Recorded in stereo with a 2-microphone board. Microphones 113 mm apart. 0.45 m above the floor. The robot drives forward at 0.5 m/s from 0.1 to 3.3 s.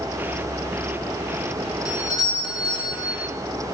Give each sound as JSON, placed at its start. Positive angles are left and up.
{"t": 1.9, "sound": "a doorbell", "side_deg": 35, "distance_m": 4.5}